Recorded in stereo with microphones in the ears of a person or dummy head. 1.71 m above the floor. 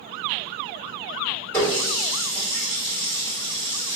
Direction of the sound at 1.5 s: 15° left (ahead or behind).